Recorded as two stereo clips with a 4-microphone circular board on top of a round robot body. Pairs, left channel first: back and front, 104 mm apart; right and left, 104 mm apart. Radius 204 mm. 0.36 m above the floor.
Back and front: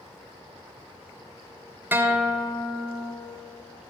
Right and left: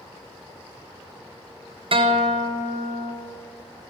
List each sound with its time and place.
1.9 s a guitar: 70° left, 0.8 m